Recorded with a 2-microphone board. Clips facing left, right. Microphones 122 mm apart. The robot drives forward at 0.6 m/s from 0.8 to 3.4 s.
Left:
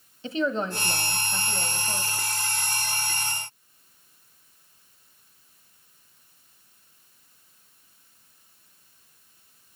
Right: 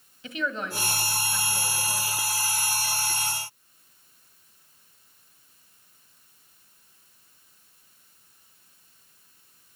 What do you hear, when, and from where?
0.2 s a woman speaking: 35° left (ahead or behind), 1.4 m; by 2.3 s 25° left (ahead or behind), 1.9 m